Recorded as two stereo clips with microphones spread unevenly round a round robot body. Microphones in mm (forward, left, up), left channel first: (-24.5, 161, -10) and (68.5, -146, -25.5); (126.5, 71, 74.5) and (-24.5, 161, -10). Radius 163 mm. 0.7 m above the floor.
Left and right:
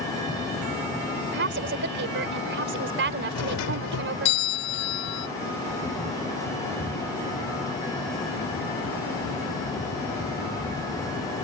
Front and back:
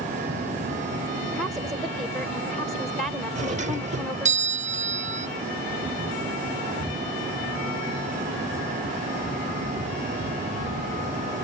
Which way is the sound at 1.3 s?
130° right.